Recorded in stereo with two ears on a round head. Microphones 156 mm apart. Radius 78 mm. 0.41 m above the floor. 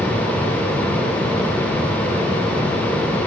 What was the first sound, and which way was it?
Only background noise.